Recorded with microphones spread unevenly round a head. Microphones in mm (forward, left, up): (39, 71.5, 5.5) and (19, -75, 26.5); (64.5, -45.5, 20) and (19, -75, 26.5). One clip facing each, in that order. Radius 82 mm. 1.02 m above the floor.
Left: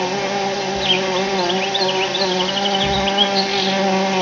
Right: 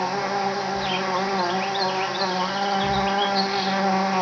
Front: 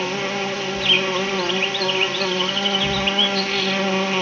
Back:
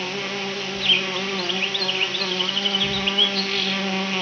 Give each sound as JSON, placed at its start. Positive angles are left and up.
{"t": 0.0, "sound": "an insect", "azimuth_deg": 100, "distance_m": 0.7}